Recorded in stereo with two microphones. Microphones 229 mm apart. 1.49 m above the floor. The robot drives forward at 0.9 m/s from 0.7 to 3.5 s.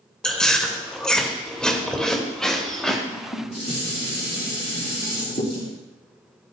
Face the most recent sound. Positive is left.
turn(degrees=30)  # may be behind; listen again after turning